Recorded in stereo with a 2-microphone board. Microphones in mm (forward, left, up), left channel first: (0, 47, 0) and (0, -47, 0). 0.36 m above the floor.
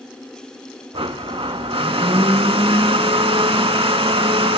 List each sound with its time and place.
0.9 s a blender: 80° right, 0.6 m